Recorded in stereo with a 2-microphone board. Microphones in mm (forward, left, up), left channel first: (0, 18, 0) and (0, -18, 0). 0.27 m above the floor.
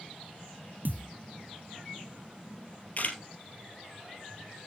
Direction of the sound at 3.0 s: 50° left (ahead or behind).